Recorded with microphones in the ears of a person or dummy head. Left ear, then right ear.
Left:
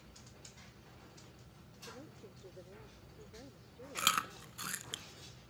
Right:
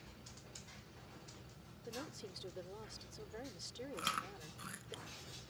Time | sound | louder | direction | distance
1.9 | a woman speaking | right 5 dB | 80° right | ?
4.0 | chewing | left 8 dB | 30° left (ahead or behind) | ?